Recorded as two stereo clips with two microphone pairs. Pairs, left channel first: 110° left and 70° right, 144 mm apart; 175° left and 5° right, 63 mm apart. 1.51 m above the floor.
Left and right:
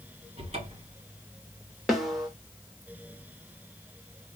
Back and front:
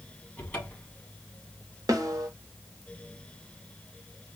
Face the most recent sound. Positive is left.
turn(degrees=15)